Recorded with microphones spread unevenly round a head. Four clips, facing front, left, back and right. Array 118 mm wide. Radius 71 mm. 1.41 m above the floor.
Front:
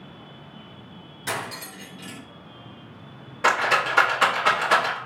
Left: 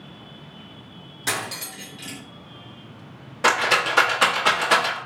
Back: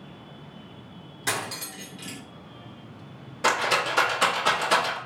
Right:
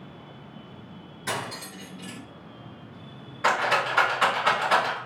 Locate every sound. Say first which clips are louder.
1.3 s cutlery clinking: left 2 dB, even; 170° left, 1.9 m
3.4 s a rattle: left 3 dB, front 3 dB; 85° left, 1.4 m